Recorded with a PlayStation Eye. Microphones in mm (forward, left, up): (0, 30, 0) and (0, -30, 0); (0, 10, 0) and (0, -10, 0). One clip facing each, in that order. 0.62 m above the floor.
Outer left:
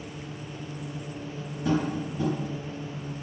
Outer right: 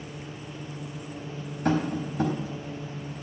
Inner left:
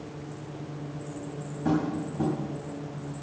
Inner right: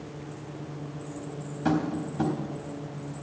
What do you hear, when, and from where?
1.6 s tapping: 65° right (ahead or behind), 3 m